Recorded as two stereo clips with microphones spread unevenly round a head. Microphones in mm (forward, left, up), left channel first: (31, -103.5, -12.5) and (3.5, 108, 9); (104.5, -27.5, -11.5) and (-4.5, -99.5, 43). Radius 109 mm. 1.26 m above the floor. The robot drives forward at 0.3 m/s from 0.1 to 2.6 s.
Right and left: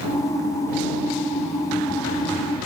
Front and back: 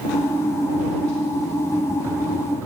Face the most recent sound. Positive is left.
No sound to turn to.